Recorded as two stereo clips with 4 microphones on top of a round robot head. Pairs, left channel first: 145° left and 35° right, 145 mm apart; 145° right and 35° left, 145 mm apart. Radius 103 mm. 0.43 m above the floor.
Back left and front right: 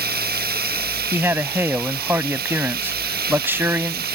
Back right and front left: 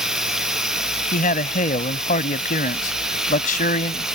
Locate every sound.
0.0 s running water: 50° right
1.1 s a man speaking: 110° right